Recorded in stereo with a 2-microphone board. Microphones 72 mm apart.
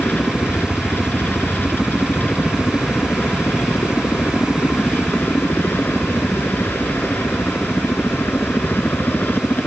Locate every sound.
0.0 s a helicopter: 25° left (ahead or behind)